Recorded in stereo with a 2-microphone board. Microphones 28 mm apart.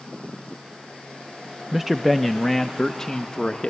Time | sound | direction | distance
1.7 | a man speaking | 15° right (ahead or behind) | 0.9 m